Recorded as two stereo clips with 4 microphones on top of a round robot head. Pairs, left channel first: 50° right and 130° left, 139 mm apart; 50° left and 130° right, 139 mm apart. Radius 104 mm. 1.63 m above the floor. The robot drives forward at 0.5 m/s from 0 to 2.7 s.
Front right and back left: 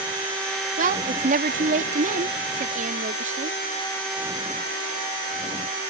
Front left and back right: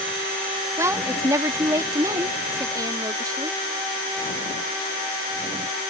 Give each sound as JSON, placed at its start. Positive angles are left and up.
{"t": 0.8, "sound": "a woman speaking", "azimuth_deg": 160}